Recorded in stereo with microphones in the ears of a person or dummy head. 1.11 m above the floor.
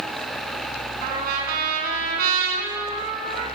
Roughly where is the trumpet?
Right.